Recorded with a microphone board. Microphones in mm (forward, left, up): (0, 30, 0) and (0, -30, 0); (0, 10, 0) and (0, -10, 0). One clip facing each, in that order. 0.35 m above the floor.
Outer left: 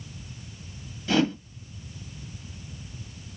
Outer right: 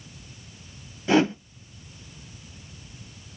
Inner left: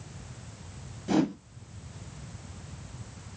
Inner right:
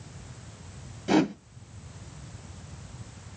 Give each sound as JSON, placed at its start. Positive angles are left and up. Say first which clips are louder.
{"t": 1.1, "sound": "a whoosh", "louder": "outer right 3 dB, inner right 3 dB", "side_deg": -30, "distance_m": 1.0}